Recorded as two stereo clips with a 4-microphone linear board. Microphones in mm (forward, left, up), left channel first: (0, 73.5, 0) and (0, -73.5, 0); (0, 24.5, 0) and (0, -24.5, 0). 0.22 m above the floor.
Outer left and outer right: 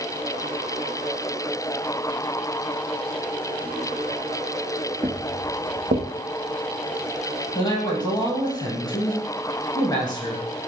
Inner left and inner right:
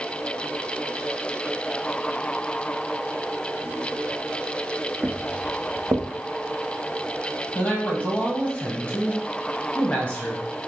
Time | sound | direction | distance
5.0 | footsteps | 40° right (ahead or behind) | 0.8 m
7.5 | a man speaking | 30° left (ahead or behind) | 1.0 m